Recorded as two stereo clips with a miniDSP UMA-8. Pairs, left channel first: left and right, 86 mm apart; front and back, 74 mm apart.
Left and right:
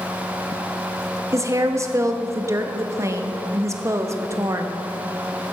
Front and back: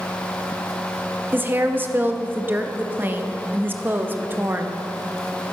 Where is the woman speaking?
125° right, 0.8 m.